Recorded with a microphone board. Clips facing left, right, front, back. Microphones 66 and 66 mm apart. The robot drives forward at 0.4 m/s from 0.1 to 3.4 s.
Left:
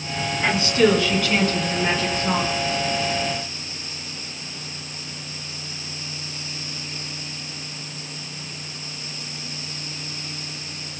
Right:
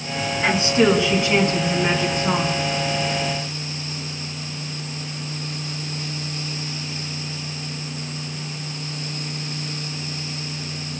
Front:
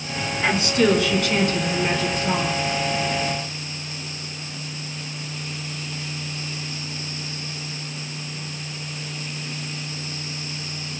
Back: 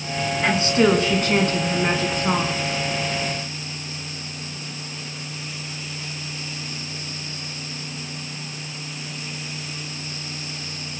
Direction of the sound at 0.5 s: 140° right.